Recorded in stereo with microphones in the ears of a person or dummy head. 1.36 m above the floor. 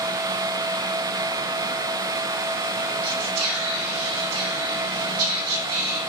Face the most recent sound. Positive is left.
turn(degrees=-85)